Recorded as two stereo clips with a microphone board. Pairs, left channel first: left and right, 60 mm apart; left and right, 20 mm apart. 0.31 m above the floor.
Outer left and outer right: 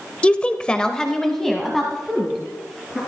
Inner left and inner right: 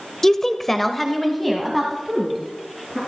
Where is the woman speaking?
20° left (ahead or behind), 0.9 m; by 3.0 s centre (ahead or behind), 3.5 m.